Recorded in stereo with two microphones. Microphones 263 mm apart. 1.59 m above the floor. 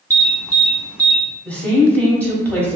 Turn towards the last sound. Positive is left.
turn(degrees=5)  # may be behind; listen again after turning